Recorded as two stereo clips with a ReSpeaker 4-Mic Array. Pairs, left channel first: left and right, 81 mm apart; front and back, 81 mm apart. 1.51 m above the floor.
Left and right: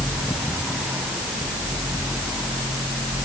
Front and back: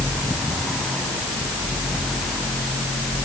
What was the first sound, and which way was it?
Only background noise.